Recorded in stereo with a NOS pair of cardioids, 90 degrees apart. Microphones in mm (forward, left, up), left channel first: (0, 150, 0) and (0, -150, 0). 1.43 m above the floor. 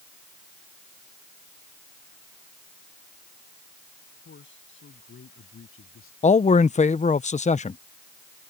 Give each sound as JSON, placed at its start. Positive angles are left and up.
{"t": 4.2, "sound": "a man speaking", "azimuth_deg": 40}
{"t": 6.2, "sound": "a man speaking", "azimuth_deg": 25}